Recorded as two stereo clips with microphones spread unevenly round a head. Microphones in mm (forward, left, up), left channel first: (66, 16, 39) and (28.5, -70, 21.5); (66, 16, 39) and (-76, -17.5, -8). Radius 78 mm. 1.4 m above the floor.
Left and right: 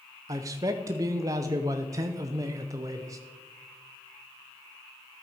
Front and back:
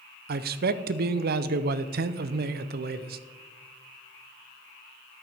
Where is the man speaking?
175° right, 0.6 m.